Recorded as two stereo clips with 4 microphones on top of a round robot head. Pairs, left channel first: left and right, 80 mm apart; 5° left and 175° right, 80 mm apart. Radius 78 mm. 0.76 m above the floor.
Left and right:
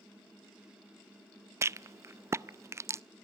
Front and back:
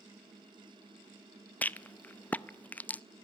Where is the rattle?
55° right, 0.6 m.